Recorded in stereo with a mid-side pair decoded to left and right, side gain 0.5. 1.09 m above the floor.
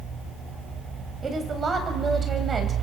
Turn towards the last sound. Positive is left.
turn(degrees=-40)